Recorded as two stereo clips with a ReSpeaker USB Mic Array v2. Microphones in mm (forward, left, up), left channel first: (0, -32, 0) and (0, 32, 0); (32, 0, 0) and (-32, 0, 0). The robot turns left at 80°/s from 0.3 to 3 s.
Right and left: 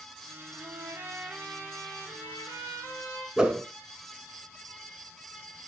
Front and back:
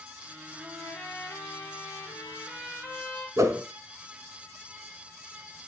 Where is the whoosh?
165° left, 0.7 m.